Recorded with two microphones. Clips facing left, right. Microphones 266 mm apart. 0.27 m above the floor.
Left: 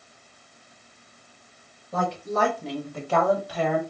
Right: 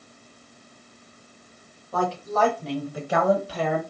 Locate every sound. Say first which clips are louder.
1.9 s a woman speaking: right 1 dB; 25° left (ahead or behind), 2.5 m; by 3.8 s 45° right (ahead or behind), 1.8 m